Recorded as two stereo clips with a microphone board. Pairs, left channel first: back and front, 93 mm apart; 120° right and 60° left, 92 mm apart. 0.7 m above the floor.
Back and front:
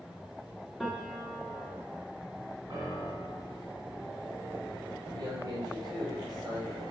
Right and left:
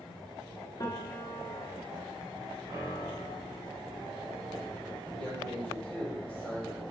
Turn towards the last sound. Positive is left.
turn(degrees=-40)